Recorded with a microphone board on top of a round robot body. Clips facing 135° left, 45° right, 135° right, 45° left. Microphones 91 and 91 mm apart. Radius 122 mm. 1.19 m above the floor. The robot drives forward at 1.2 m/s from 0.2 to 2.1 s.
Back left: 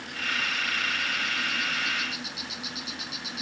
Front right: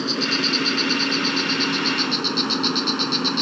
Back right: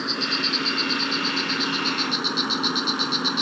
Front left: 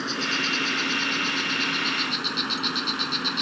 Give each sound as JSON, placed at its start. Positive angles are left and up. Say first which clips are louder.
{"t": 0.0, "sound": "an insect", "louder": "front right 9 dB, back right 1 dB", "azimuth_deg": -55}